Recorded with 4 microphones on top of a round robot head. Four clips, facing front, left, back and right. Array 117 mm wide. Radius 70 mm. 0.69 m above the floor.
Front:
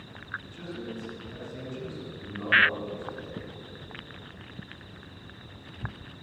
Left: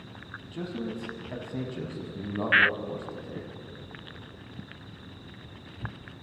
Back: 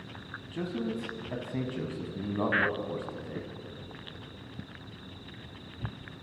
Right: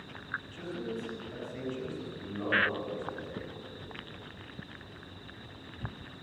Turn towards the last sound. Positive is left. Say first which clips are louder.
# left 7 dB, back 9 dB
turn(degrees=150)